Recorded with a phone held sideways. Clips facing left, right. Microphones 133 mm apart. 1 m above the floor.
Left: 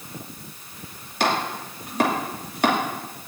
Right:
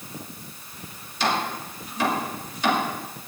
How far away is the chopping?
About 2.5 m.